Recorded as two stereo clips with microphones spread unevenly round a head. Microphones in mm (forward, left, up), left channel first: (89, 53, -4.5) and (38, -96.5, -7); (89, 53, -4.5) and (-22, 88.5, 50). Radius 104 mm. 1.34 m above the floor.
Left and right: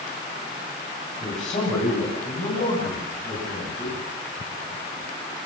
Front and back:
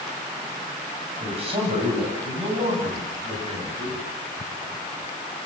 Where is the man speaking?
130° left, 10 m; by 4.0 s 135° left, 13.5 m.